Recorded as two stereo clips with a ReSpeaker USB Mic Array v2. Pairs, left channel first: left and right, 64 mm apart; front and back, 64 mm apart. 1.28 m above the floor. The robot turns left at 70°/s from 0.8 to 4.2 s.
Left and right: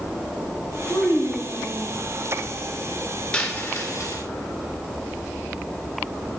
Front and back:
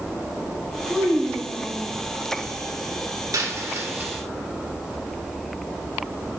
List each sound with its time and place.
0.9 s a child speaking: 120° left, 3 m; by 1.9 s 50° left, 3 m
3.3 s a dropped coin: 160° left, 1.9 m; by 4.2 s 100° left, 1.9 m